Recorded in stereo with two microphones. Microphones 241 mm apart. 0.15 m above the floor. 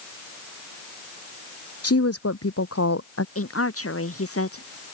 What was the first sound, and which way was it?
A woman speaking, 80° left.